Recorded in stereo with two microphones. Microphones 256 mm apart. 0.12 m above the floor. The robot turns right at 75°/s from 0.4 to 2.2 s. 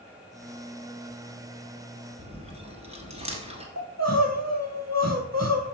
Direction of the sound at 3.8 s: 70° right (ahead or behind).